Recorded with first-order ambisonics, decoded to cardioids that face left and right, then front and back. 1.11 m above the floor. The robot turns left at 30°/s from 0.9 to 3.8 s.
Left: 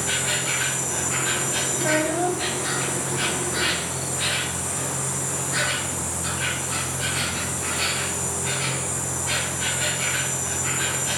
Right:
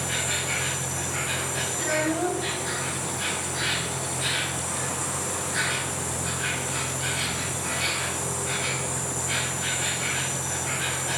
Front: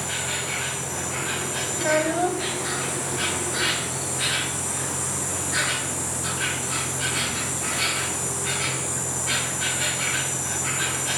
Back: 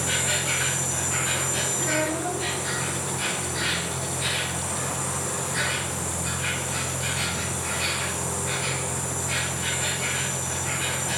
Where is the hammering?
No hammering in this recording.